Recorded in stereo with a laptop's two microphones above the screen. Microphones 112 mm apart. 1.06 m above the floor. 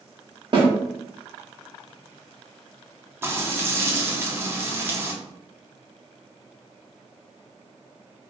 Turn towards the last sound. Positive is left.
turn(degrees=-20)  # may be behind; listen again after turning